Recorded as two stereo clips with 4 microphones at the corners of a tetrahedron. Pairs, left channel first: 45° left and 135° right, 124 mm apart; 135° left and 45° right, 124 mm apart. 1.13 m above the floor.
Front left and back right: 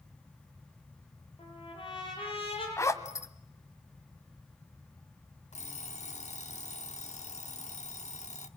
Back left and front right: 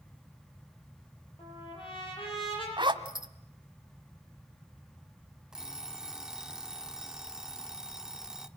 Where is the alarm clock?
40° left, 1.3 m.